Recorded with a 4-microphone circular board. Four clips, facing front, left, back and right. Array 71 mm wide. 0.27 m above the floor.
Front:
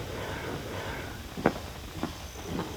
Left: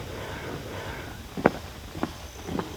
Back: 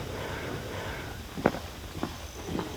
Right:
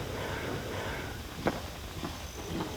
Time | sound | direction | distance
1.4 | footsteps | 95° left | 2 m